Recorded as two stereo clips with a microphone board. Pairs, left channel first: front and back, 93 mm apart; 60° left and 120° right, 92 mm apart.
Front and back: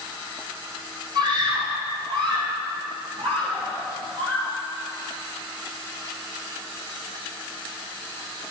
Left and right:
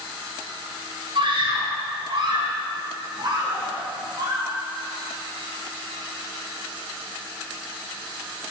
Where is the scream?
140° right, 5 m; by 4.5 s 165° right, 6 m.